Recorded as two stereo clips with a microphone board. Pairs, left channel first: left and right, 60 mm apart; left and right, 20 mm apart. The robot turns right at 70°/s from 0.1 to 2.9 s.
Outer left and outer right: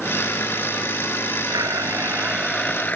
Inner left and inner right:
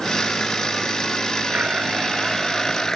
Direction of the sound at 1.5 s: 75° right.